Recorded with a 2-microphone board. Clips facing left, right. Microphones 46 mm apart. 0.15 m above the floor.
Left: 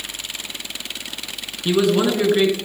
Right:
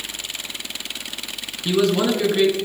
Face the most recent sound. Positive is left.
turn(degrees=15)  # may be behind; listen again after turning